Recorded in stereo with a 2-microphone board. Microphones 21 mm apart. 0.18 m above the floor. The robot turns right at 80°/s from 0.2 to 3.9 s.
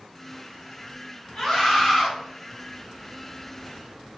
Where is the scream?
15° left (ahead or behind), 1.6 m; by 2.1 s 5° right (ahead or behind), 1.6 m.